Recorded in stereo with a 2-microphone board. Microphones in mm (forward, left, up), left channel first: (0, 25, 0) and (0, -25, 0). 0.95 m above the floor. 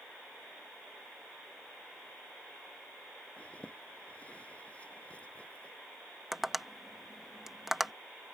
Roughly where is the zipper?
Left.